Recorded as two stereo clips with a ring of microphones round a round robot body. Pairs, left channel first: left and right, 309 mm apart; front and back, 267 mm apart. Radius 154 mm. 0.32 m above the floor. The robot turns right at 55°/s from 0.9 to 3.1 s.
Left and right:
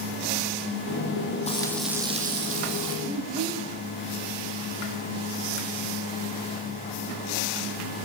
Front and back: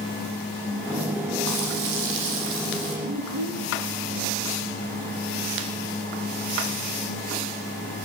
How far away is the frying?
About 8.5 m.